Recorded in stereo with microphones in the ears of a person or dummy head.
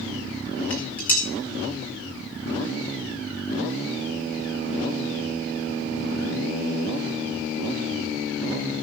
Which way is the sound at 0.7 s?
10° left (ahead or behind).